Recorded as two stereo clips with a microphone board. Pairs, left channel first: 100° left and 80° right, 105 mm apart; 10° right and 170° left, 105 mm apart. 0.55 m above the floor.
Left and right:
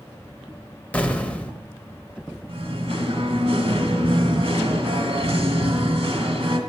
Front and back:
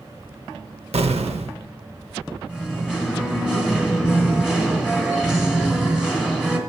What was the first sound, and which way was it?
An explosion, 175° left.